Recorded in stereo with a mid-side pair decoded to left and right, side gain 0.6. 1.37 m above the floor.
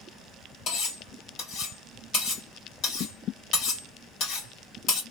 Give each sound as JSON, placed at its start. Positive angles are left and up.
{"t": 0.7, "sound": "cutlery clinking", "azimuth_deg": 65, "distance_m": 1.7}